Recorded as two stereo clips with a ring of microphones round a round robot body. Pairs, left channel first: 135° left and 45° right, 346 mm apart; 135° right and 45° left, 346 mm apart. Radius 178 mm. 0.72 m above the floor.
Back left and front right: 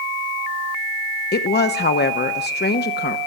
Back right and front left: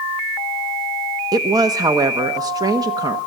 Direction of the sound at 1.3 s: 115° left.